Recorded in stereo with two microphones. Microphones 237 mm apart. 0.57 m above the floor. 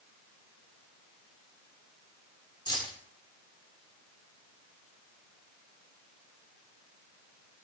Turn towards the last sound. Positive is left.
turn(degrees=20)  # may be behind; listen again after turning